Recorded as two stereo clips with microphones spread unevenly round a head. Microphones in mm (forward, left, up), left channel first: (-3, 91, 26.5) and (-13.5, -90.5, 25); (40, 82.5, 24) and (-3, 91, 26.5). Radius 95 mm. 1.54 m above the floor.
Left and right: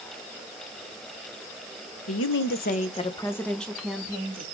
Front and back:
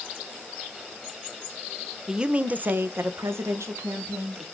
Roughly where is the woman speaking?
Left.